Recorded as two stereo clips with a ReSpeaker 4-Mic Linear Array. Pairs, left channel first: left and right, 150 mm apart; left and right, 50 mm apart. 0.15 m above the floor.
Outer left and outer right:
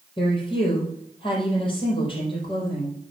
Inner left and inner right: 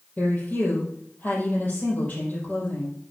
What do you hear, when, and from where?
0.2 s a woman speaking: 35° left (ahead or behind), 4.5 m